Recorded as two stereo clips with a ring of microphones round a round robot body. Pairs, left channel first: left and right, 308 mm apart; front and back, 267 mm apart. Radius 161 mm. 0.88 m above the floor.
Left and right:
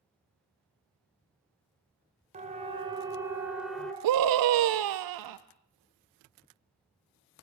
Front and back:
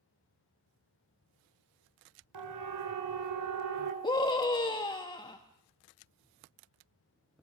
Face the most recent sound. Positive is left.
turn(degrees=-75)